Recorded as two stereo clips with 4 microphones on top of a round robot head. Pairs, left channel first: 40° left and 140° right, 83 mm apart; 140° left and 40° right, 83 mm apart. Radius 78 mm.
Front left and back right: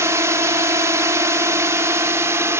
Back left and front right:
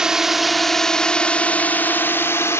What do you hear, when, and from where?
0.0 s a drone: 120° right; by 2.6 s straight behind